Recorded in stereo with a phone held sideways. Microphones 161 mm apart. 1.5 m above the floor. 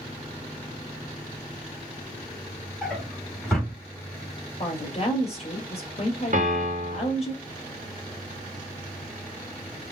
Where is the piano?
55° right (ahead or behind), 1.7 m.